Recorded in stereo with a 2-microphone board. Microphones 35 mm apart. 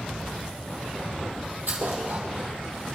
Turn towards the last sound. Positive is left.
turn(degrees=-65)  # may be behind; listen again after turning